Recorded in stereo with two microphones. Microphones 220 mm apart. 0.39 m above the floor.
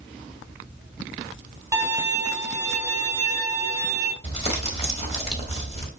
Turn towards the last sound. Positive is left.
turn(degrees=25)  # may be behind; listen again after turning